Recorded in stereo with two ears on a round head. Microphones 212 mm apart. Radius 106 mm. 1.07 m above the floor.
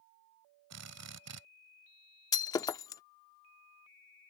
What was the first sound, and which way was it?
A drill, 75° right (ahead or behind).